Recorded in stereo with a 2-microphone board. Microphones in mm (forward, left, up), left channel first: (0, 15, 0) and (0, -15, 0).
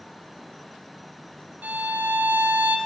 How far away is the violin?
About 1.1 m.